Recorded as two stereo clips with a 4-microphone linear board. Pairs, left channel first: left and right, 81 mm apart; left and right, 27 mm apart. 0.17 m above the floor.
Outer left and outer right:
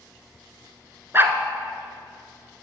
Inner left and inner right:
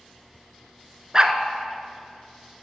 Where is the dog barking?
30° right (ahead or behind), 0.7 m.